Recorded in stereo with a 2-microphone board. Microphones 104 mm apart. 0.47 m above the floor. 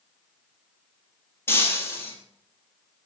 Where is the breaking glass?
20° left (ahead or behind), 2 m.